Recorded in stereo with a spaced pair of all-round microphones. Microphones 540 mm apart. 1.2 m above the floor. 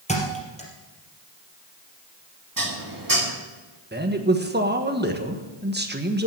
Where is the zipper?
I don't hear a zipper.